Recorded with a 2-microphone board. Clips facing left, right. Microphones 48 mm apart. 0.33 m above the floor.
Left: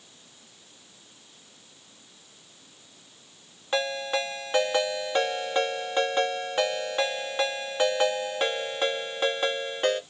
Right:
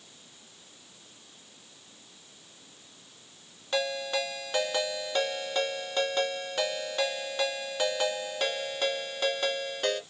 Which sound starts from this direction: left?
A ringtone, at 3.7 s.